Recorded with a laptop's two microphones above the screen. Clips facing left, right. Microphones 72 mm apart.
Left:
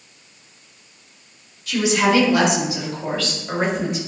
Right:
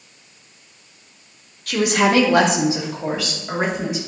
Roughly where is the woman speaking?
Right.